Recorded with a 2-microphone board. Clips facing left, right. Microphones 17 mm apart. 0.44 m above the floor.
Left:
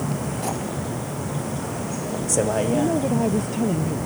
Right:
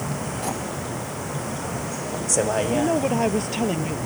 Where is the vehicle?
15° right (ahead or behind).